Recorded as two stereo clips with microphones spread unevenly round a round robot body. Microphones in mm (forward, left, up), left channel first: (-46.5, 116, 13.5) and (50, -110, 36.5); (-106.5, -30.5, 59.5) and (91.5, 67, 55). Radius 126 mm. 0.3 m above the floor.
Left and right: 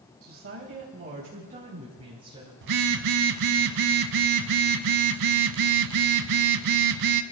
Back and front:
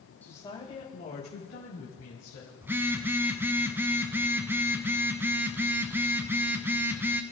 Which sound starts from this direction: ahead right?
A phone buzzing, at 2.6 s.